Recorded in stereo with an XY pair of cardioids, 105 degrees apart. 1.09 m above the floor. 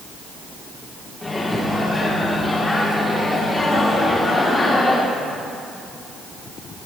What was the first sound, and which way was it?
A microwave, 20° left.